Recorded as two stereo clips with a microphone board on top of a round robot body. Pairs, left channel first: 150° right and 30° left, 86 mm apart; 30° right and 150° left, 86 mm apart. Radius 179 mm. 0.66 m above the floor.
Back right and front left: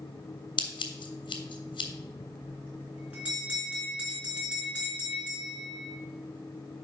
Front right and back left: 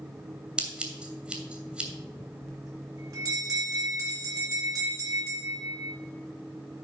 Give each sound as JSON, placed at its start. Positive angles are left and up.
{"t": 0.6, "sound": "scissors", "azimuth_deg": -130, "distance_m": 1.3}
{"t": 2.4, "sound": "a bell", "azimuth_deg": 105, "distance_m": 3.0}